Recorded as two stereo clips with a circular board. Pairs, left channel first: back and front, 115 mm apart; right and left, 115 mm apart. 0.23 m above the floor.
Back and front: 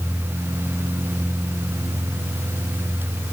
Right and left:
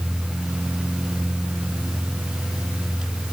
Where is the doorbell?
No doorbell in this recording.